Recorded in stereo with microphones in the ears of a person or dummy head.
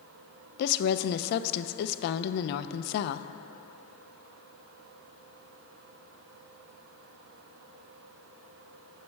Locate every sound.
0.6 s a woman speaking: 60° left (ahead or behind), 0.6 m